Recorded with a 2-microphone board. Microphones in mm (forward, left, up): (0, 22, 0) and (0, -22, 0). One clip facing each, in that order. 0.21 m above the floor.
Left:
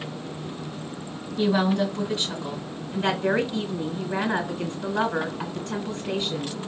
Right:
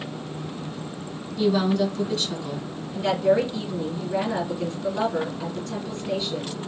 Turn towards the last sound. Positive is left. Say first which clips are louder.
# right 3 dB
turn(degrees=45)  # may be behind; listen again after turning